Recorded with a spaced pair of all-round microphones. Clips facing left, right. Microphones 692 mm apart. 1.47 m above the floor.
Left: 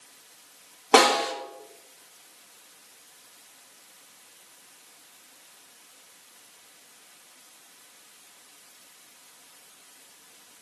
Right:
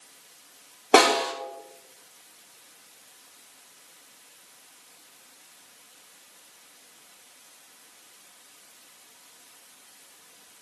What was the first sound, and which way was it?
A snare drum, 30° left (ahead or behind).